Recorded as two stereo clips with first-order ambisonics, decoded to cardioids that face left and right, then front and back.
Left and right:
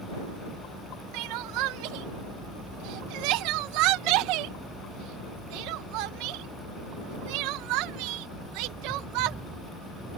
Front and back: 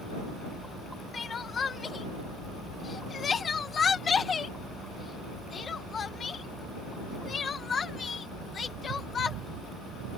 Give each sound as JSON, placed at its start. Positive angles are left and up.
{"t": 1.1, "sound": "crying", "azimuth_deg": -70}